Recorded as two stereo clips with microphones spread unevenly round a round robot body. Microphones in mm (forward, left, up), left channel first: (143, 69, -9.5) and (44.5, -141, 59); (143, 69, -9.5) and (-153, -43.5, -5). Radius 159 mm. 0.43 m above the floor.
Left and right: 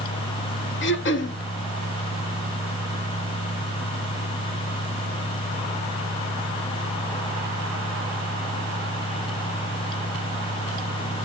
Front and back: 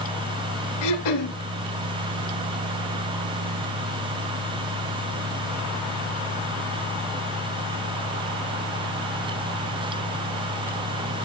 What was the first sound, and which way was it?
Throat clearing, 20° left.